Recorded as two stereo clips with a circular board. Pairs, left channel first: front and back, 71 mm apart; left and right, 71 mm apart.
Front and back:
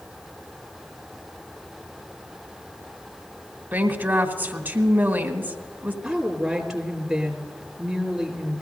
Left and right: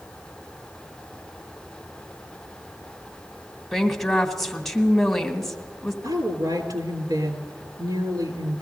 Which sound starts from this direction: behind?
A woman speaking, at 3.7 s.